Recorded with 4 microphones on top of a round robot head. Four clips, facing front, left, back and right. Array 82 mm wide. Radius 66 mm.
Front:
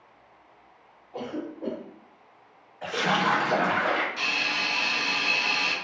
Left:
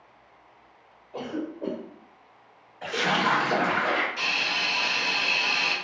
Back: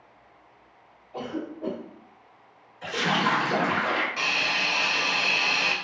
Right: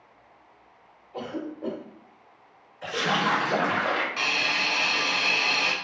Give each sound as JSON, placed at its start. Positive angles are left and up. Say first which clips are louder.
{"t": 1.1, "sound": "a cough", "louder": "left 1 dB, back 1 dB", "azimuth_deg": 70, "distance_m": 1.2}
{"t": 2.8, "sound": "a splash", "louder": "left 1 dB, even", "azimuth_deg": 45, "distance_m": 1.2}
{"t": 4.2, "sound": "a hiss", "louder": "right 2 dB, back 2 dB", "azimuth_deg": -130, "distance_m": 0.5}